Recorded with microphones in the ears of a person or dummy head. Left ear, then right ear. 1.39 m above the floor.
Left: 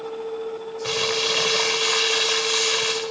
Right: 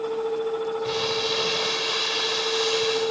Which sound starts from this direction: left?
Crumpling, at 0.8 s.